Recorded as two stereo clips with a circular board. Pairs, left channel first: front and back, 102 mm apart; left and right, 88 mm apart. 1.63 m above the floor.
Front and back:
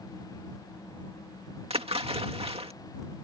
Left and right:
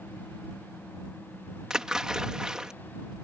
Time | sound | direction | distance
1.7 | a splash | 170° right | ?